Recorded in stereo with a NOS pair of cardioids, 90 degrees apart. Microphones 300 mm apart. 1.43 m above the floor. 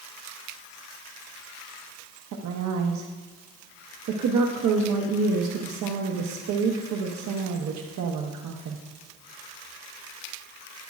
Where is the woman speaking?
65° right, 1.0 m.